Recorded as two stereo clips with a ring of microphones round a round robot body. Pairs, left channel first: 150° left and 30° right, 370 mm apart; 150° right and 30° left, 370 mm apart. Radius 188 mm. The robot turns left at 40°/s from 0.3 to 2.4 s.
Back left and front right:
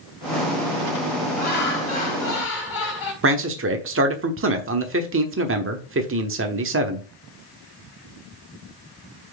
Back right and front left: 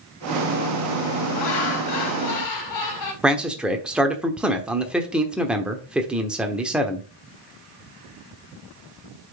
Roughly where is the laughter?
Behind right.